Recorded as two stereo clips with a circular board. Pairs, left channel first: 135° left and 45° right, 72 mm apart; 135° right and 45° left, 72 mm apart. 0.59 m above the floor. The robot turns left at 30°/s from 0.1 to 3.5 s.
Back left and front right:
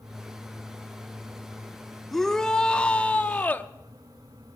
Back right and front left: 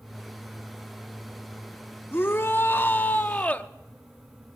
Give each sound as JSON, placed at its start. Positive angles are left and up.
{"t": 2.1, "sound": "a shout", "azimuth_deg": -140, "distance_m": 0.6}